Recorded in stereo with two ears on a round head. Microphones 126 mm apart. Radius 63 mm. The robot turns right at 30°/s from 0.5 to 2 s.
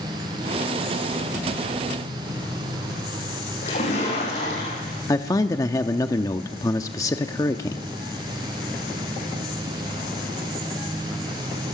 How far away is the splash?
About 8.5 m.